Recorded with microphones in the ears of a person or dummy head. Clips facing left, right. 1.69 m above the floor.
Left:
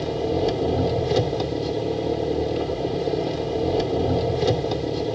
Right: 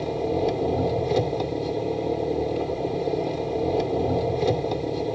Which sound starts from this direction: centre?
An engine running, at 0.0 s.